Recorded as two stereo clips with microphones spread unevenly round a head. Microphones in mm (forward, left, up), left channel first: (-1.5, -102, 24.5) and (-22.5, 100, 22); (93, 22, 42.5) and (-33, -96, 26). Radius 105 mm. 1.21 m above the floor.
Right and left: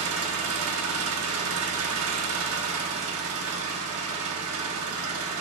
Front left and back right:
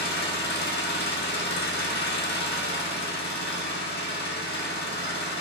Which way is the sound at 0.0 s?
85° left.